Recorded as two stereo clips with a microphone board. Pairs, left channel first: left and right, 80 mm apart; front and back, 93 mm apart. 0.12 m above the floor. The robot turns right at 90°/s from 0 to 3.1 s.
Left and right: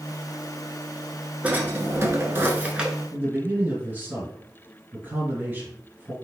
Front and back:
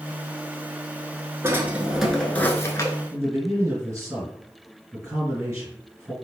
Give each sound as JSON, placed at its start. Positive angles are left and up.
{"t": 1.4, "sound": "a drawer", "azimuth_deg": -145, "distance_m": 0.8}
{"t": 3.1, "sound": "a man speaking", "azimuth_deg": -140, "distance_m": 2.0}